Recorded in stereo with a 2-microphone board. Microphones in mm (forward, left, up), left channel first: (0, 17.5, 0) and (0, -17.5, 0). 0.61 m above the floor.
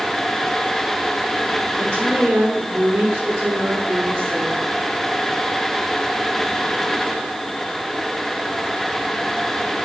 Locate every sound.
1.8 s a woman speaking: 75° right (ahead or behind), 6.5 m